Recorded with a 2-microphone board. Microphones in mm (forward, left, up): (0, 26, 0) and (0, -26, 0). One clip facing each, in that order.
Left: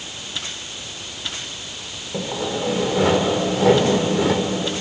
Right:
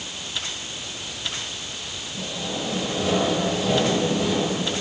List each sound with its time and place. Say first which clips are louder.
2.1 s sawing: left 6 dB; 70° left (ahead or behind), 3.5 m